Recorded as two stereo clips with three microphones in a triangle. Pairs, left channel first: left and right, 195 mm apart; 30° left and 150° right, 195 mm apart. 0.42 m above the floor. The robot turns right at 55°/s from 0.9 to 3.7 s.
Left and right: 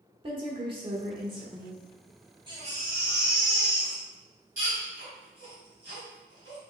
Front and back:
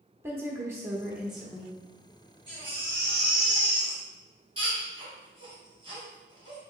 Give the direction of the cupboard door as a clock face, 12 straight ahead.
I don't hear a cupboard door.